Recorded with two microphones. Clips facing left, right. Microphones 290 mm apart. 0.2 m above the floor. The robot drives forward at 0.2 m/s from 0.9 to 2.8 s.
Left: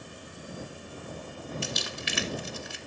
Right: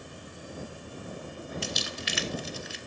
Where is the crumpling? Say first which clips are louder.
Even; 65° left (ahead or behind), 1.3 m; by 2.8 s 60° left (ahead or behind), 1.4 m.